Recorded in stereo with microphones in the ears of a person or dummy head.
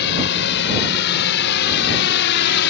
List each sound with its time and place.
0.0 s a drone: 60° left (ahead or behind)